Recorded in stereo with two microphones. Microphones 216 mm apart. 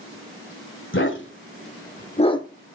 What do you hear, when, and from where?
0.9 s a dog barking: 60° left (ahead or behind), 1.8 m; by 2.5 s 15° left (ahead or behind), 0.9 m